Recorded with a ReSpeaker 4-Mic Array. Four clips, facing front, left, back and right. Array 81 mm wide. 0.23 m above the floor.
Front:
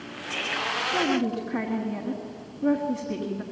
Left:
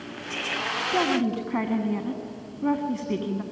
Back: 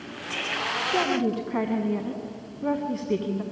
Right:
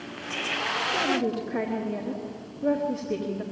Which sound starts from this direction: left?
A woman speaking, at 0.9 s.